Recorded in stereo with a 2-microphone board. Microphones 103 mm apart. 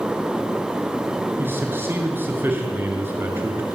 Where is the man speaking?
20° right (ahead or behind), 6.5 m.